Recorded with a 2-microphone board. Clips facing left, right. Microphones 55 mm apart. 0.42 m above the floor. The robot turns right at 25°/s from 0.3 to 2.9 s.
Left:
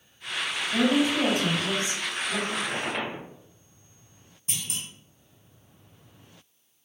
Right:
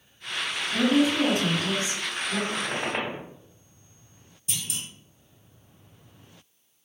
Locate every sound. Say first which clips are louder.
0.7 s a woman speaking: right 1 dB; 50° left, 1.9 m; by 2.4 s 90° left, 1.9 m
2.5 s a squeak: right 1 dB; 25° right (ahead or behind), 1.3 m; by 3.2 s 35° right (ahead or behind), 1.3 m
4.5 s a clunk: even; 40° left (ahead or behind), 1.9 m